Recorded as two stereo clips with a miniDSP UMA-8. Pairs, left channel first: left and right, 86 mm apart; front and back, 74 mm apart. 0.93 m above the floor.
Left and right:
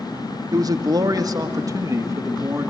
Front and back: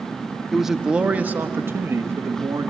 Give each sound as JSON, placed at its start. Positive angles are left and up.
{"t": 0.5, "sound": "a man speaking", "azimuth_deg": -90, "distance_m": 0.9}